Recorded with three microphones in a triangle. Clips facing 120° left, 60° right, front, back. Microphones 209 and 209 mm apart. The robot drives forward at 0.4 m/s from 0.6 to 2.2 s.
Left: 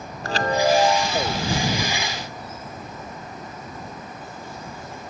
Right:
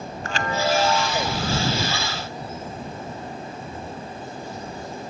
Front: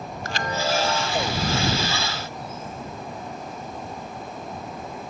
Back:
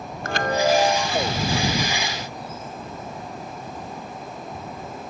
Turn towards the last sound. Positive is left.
turn(degrees=175)